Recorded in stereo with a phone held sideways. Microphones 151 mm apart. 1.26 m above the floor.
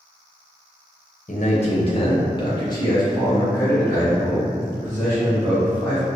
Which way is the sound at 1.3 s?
55° left (ahead or behind).